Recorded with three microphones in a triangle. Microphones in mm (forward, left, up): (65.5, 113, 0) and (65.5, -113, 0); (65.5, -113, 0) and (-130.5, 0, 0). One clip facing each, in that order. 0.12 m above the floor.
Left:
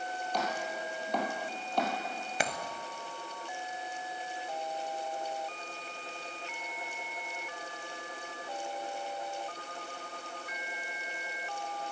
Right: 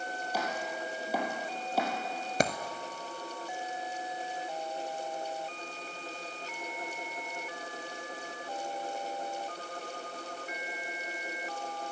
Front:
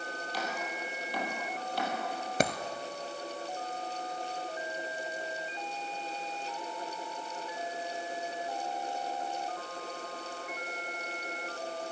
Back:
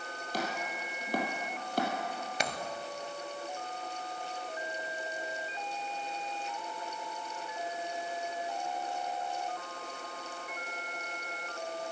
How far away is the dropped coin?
About 0.8 m.